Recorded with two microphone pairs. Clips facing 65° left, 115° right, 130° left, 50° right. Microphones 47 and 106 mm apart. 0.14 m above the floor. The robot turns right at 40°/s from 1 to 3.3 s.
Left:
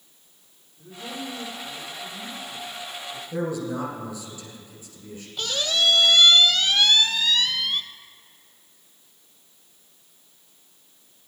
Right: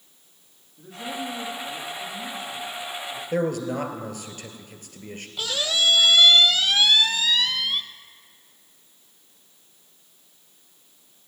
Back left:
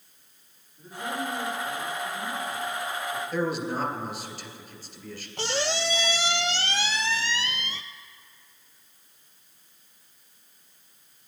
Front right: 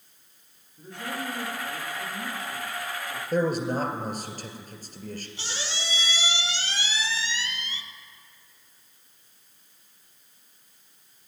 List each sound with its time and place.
0.8 s a man speaking: 120° right, 6.5 m; by 3.2 s 30° right, 6.5 m
3.3 s a man speaking: 90° right, 2 m
5.4 s a squeak: 160° left, 0.7 m